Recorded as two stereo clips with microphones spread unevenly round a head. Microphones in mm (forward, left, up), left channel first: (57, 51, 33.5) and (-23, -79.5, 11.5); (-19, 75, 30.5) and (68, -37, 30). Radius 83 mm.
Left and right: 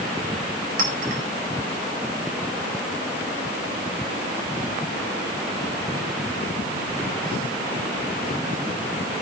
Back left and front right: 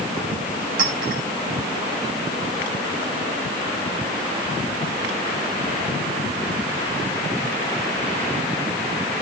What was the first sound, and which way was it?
A clink, 90° right.